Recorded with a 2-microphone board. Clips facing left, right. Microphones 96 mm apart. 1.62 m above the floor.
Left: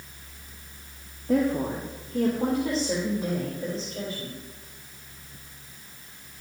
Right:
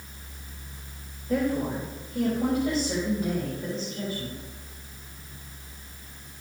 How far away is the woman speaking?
About 1.5 m.